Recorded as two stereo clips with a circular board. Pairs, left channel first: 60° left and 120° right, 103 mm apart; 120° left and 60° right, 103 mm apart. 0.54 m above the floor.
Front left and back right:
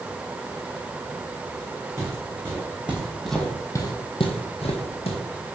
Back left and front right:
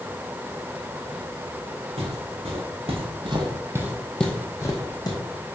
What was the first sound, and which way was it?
Footsteps, 60° right.